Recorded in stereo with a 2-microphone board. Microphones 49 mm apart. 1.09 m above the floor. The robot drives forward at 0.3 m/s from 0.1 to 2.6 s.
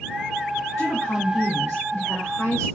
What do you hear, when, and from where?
0.8 s a woman speaking: 75° left (ahead or behind), 1.6 m